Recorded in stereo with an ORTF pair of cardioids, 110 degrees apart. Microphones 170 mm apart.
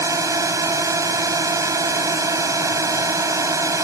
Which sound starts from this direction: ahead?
A drone, at 0.0 s.